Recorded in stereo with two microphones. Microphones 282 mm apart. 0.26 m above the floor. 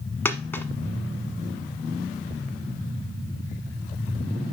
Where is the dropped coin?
10° left (ahead or behind), 1.0 m.